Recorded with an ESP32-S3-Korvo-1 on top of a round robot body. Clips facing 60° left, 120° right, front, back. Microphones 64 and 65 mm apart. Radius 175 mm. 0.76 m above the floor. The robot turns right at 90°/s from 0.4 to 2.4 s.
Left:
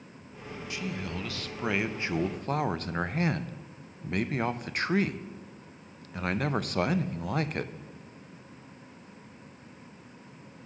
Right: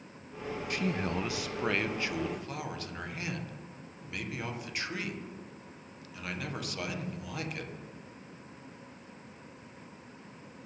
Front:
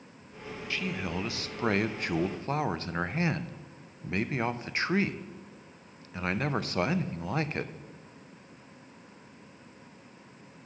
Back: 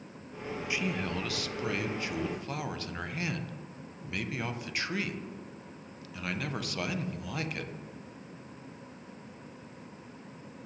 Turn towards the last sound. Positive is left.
turn(degrees=45)